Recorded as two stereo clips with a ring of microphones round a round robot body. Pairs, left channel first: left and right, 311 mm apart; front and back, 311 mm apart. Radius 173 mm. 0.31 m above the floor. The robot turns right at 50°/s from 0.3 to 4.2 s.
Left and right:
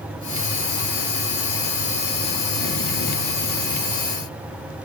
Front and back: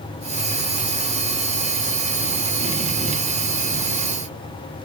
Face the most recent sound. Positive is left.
No sound to turn to.